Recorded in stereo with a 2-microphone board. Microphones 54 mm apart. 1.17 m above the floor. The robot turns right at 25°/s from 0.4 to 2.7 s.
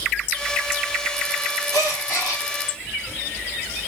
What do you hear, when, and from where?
1.7 s a gasp: 85° left, 1.7 m; by 2.4 s 70° left (ahead or behind), 1.7 m